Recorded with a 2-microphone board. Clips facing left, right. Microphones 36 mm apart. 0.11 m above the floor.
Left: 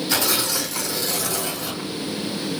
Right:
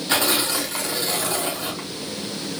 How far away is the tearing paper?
About 4 m.